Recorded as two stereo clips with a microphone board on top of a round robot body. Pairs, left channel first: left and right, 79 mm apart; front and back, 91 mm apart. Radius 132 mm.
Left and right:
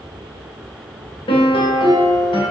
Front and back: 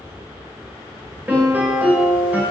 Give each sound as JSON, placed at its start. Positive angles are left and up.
{"t": 1.3, "sound": "a piano", "azimuth_deg": 105, "distance_m": 1.8}